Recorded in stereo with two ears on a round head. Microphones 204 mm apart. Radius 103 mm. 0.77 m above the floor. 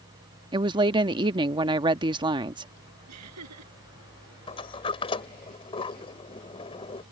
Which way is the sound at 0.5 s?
20° right (ahead or behind).